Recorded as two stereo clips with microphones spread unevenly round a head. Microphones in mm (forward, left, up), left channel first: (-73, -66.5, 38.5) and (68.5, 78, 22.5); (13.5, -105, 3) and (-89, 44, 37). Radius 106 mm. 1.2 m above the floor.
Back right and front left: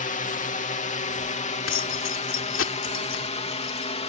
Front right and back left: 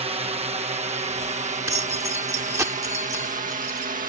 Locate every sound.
0.0 s a drone: straight behind; by 4.1 s 165° left
1.7 s keys jangling: 160° right